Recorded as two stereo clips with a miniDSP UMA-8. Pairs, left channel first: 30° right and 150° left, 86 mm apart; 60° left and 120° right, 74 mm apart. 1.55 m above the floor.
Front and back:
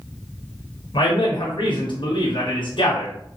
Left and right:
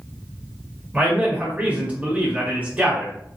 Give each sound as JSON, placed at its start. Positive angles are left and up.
{"t": 0.9, "sound": "a man speaking", "azimuth_deg": -50, "distance_m": 1.1}